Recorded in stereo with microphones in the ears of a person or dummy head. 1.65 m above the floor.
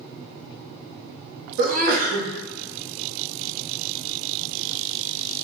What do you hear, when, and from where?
1.6 s a sneeze: 50° right (ahead or behind), 0.7 m